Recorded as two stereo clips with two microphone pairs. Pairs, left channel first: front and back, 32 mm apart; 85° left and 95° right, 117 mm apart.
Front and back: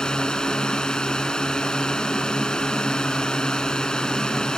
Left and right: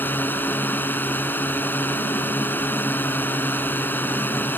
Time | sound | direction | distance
0.0 | a drone | 30° left | ?